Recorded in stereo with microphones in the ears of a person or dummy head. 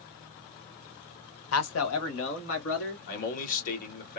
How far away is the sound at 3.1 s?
About 1.9 m.